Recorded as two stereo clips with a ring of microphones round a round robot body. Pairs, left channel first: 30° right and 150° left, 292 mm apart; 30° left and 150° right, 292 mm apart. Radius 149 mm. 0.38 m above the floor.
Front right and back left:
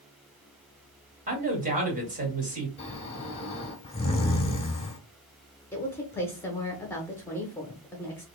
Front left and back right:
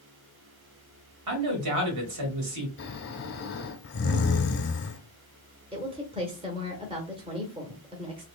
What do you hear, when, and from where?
1.3 s a man speaking: 150° right, 1.9 m
2.8 s snoring: 25° left, 1.3 m
5.7 s a woman speaking: 105° right, 1.0 m